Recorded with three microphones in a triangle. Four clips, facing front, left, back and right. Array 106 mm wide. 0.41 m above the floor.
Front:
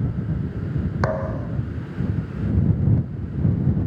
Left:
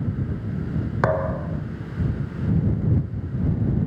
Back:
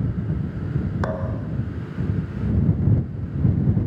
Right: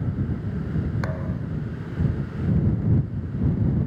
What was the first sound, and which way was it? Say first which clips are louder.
A thud: left 8 dB, front 3 dB; 70° left.